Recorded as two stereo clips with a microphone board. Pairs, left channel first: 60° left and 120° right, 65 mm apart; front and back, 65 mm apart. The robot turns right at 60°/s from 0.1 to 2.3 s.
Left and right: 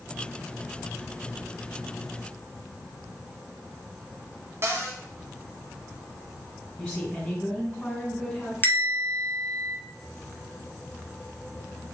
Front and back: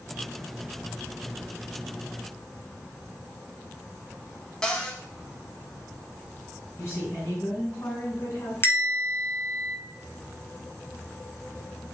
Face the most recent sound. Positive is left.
turn(degrees=20)